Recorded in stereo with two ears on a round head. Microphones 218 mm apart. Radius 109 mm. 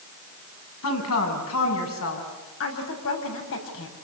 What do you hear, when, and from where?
0.8 s a woman speaking: 65° left (ahead or behind), 9 m
2.6 s a woman speaking: 60° left (ahead or behind), 6.5 m